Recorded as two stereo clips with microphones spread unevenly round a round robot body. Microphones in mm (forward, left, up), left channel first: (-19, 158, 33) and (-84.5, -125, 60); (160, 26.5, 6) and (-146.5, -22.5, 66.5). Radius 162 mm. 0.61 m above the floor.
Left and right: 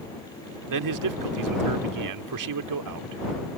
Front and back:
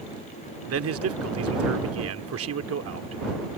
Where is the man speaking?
120° right.